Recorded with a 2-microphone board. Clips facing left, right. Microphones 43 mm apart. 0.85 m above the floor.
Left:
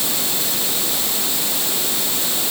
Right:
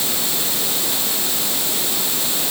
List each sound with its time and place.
Only background noise.